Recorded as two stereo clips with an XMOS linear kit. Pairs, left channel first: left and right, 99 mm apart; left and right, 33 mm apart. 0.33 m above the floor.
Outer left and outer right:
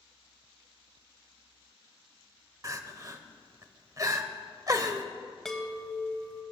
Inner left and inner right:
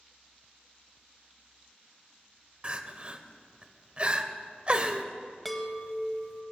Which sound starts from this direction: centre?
A chime, at 5.5 s.